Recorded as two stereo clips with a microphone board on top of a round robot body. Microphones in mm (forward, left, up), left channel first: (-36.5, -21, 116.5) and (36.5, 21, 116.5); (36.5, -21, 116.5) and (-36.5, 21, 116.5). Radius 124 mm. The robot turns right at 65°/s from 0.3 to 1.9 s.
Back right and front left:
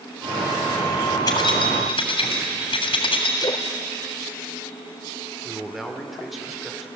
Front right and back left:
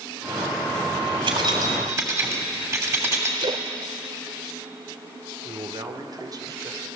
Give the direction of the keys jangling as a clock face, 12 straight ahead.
7 o'clock.